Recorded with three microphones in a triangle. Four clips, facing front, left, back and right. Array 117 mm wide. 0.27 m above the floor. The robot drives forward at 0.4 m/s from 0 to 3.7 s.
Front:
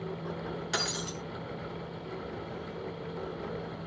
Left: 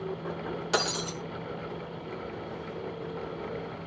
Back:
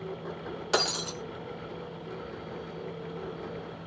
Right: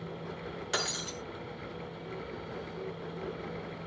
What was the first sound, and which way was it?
Breaking glass, 150° left.